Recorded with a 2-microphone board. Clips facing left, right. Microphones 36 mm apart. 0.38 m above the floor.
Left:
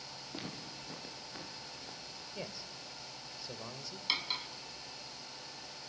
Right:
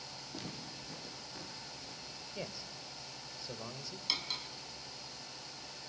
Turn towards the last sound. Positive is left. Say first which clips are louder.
# left 3 dB
turn(degrees=25)  # may be behind; listen again after turning